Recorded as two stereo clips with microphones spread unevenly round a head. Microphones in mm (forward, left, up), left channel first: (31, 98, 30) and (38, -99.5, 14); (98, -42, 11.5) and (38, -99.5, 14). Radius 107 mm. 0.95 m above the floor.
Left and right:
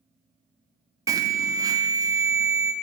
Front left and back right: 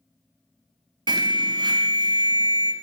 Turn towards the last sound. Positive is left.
turn(degrees=-155)